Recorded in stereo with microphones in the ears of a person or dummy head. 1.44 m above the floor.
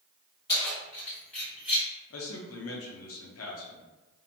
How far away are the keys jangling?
About 1.7 m.